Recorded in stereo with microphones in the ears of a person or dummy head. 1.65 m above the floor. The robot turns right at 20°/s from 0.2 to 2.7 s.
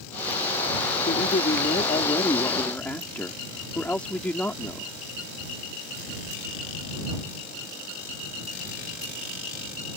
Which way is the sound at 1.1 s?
140° left.